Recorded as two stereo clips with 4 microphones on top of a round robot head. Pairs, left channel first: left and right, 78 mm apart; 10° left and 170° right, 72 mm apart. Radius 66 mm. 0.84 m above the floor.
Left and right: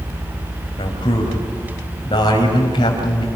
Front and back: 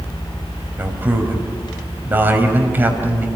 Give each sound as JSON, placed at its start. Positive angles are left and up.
{"t": 0.8, "sound": "a man speaking", "azimuth_deg": 125, "distance_m": 5.0}